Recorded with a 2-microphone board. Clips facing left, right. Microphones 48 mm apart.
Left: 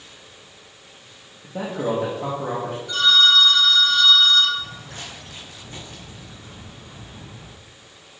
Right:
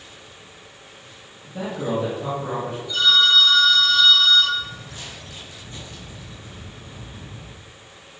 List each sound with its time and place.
1.4 s a man speaking: 55° left (ahead or behind), 1.7 m
2.9 s a phone ringing: 65° left (ahead or behind), 3.5 m
4.6 s footsteps: 50° left (ahead or behind), 1.9 m; by 7.5 s 25° left (ahead or behind), 5 m